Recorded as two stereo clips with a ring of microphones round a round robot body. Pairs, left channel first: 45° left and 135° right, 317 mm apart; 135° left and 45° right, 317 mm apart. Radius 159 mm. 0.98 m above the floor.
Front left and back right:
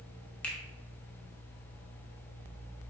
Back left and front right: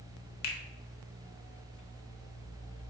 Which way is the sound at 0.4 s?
130° left.